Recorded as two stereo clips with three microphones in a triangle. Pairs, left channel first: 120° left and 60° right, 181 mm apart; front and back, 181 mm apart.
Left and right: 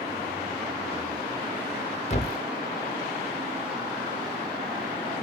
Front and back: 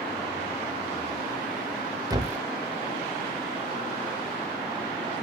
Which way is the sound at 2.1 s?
125° left.